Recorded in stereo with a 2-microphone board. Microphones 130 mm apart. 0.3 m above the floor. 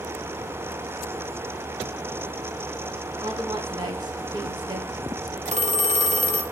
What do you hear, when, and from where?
3.2 s a woman speaking: 35° right (ahead or behind), 3 m
5.5 s a phone ringing: 60° right (ahead or behind), 1.2 m